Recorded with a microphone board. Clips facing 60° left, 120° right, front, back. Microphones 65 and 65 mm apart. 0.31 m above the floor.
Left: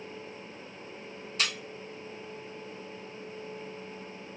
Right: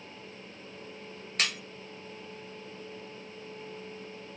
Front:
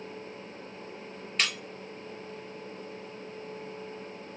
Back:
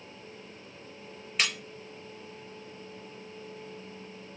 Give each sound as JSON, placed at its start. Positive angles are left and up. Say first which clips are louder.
{"t": 1.4, "sound": "breaking glass", "louder": "right 1 dB, even", "azimuth_deg": -95, "distance_m": 1.0}